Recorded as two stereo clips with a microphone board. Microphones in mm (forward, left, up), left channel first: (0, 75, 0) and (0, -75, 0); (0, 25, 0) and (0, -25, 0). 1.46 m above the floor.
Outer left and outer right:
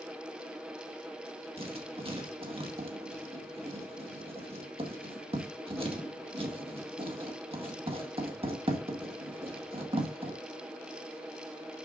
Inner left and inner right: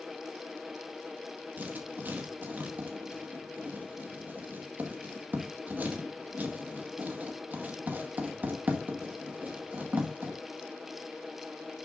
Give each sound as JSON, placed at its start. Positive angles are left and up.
{"t": 1.6, "sound": "writing", "side_deg": -40, "distance_m": 2.0}